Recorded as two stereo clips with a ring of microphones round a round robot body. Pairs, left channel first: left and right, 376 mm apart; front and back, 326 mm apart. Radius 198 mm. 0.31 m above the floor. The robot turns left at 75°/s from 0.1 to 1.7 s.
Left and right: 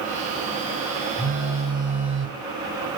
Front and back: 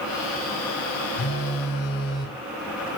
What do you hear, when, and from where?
1.2 s a phone buzzing: 15° left, 0.9 m; by 2.4 s 20° right, 0.9 m